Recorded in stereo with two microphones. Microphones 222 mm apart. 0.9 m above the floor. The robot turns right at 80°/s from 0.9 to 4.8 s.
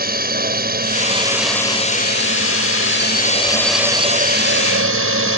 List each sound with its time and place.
0.0 s a drone: 45° right; by 5.4 s 95° right